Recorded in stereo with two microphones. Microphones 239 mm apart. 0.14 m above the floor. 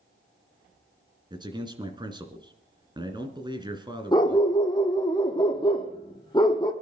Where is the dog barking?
20° left (ahead or behind), 2.0 m.